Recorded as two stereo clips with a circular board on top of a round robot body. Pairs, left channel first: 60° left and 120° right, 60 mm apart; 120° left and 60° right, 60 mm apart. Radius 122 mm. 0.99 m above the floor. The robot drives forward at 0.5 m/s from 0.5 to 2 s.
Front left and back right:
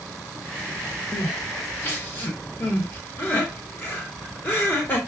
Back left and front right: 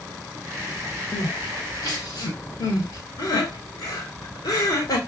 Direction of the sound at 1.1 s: 90° left.